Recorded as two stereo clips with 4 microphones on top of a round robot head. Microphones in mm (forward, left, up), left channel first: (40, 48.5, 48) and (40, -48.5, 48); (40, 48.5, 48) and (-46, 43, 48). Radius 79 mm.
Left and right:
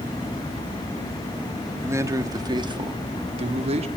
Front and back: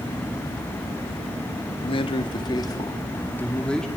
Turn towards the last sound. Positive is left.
turn(degrees=-80)